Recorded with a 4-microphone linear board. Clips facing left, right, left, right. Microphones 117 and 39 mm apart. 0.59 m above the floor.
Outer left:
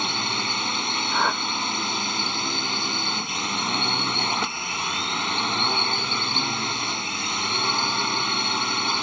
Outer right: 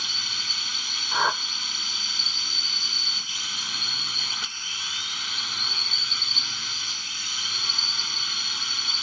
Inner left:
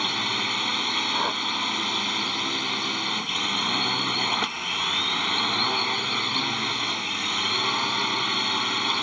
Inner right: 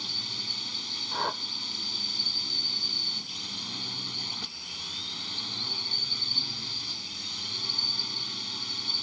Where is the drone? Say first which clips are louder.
Outer left 13 dB, inner left 11 dB; 55° left (ahead or behind).